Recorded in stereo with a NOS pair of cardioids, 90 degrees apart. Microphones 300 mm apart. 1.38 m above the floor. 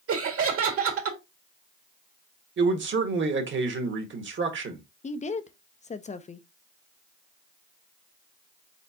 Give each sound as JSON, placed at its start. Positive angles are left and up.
{"t": 0.1, "sound": "laughter", "azimuth_deg": -55, "distance_m": 2.0}
{"t": 2.6, "sound": "a man speaking", "azimuth_deg": -45, "distance_m": 1.6}
{"t": 5.0, "sound": "a woman speaking", "azimuth_deg": 25, "distance_m": 0.7}